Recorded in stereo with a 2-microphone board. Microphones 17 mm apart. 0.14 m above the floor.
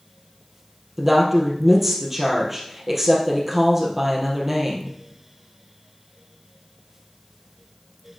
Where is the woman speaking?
10° right (ahead or behind), 3.5 m.